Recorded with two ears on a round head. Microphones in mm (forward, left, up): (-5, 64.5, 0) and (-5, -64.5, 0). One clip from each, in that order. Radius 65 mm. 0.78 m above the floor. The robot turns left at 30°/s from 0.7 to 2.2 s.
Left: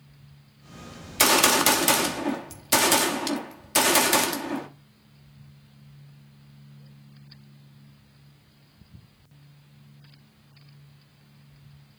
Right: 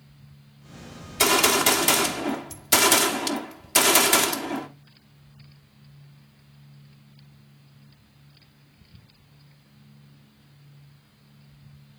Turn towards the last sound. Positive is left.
turn(degrees=-5)